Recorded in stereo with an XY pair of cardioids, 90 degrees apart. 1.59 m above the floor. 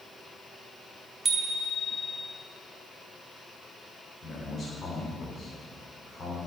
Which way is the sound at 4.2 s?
40° left.